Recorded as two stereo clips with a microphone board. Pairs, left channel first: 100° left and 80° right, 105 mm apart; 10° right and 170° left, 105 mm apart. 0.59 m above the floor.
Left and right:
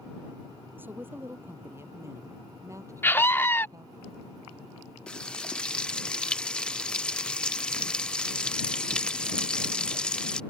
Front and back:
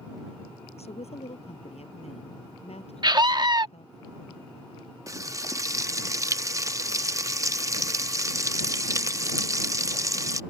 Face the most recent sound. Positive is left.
turn(degrees=170)